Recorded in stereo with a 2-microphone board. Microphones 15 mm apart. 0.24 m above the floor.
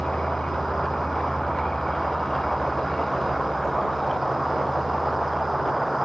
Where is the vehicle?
65° left (ahead or behind); by 6.0 s 5° left (ahead or behind).